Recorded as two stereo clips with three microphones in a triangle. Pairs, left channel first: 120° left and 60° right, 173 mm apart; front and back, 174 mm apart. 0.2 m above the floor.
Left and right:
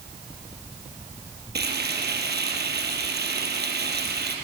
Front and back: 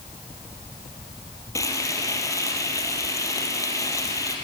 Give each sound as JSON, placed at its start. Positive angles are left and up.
{"t": 1.6, "sound": "frying", "azimuth_deg": -70, "distance_m": 3.5}